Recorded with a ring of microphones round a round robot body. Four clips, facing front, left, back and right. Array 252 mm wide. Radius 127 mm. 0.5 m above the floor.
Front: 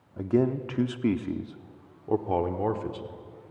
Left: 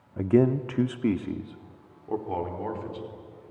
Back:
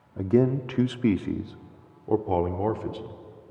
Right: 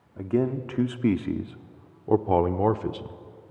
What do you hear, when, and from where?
0.2 s a man speaking: 115° left, 0.9 m; by 3.2 s 95° right, 1.5 m